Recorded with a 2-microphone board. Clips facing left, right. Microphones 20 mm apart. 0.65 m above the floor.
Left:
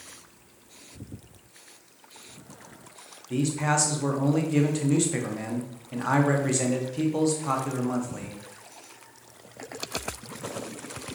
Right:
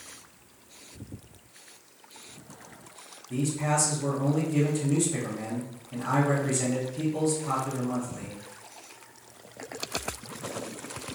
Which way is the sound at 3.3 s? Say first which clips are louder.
Left 2 dB; 35° left (ahead or behind).